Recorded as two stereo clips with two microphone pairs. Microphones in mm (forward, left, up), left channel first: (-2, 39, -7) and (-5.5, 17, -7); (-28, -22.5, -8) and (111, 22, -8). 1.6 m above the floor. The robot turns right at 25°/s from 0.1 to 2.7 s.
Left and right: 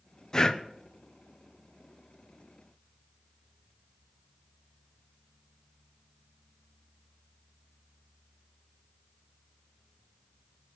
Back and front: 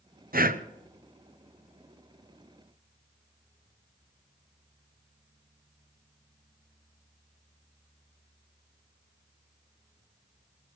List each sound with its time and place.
0.3 s breathing: 25° left, 0.9 m; by 0.6 s 30° left, 0.9 m